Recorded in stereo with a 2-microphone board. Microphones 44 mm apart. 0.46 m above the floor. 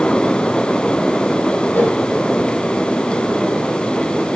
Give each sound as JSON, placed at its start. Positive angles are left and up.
{"t": 1.7, "sound": "a whoosh", "side_deg": 45, "distance_m": 6.5}